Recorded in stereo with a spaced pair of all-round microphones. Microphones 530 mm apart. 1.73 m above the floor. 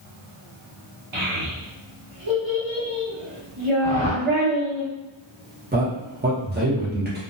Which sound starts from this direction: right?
A child speaking, at 1.1 s.